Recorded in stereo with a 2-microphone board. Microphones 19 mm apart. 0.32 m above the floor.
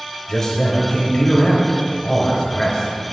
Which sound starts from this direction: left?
A man speaking, at 0.3 s.